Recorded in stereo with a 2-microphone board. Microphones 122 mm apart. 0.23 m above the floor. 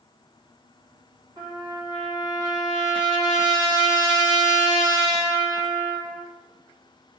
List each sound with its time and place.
1.4 s a trumpet: 40° right (ahead or behind), 1.6 m